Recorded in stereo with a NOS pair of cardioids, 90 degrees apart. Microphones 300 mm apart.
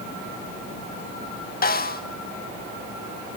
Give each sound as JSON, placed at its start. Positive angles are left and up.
{"t": 1.6, "sound": "a snare drum", "azimuth_deg": 30, "distance_m": 2.0}